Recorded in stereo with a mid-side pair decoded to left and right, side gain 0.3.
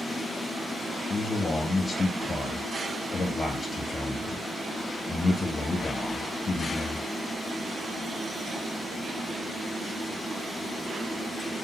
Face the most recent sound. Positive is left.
turn(degrees=50)